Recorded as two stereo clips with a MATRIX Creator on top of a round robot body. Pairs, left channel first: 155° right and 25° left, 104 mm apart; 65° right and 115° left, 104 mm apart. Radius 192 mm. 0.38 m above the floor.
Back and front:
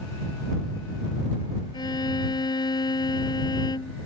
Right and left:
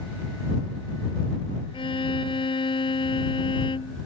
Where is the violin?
105° right.